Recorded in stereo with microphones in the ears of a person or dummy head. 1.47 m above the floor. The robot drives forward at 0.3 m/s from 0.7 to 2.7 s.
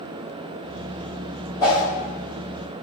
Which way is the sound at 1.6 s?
20° left (ahead or behind).